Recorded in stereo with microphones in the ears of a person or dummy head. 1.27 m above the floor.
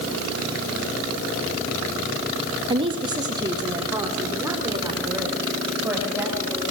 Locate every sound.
2.7 s a woman speaking: 25° right (ahead or behind), 1.9 m; by 6.6 s 15° right (ahead or behind), 6 m